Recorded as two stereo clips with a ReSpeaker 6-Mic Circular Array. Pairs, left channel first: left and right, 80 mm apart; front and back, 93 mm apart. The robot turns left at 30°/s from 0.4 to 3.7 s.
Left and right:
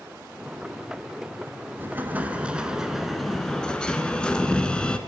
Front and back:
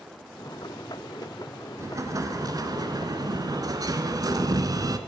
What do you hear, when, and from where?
1.8 s an explosion: 140° right, 0.8 m; by 5.0 s 160° left, 0.8 m